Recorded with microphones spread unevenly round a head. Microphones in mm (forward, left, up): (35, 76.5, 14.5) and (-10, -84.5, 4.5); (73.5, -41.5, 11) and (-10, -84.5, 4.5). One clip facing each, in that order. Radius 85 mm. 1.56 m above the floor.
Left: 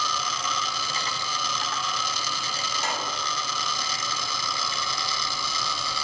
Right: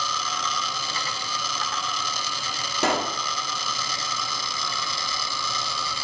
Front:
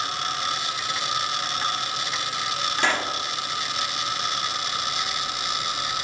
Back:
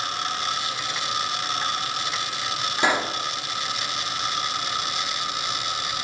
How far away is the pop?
About 1.9 m.